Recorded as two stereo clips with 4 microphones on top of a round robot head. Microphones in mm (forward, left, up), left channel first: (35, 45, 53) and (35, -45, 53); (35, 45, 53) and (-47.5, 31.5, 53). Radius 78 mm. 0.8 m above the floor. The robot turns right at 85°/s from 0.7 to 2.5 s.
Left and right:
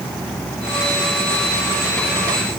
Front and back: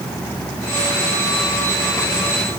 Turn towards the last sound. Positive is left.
No sound to turn to.